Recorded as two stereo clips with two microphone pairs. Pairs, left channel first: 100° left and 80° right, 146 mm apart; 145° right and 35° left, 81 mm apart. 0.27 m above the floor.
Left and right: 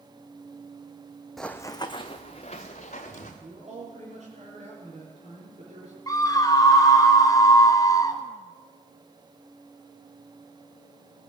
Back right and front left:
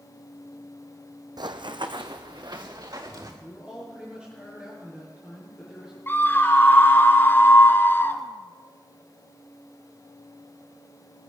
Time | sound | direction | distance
1.4 | running footsteps | 10° left | 0.8 m
3.4 | a man speaking | 40° right | 5 m
6.1 | a scream | 160° left | 1.7 m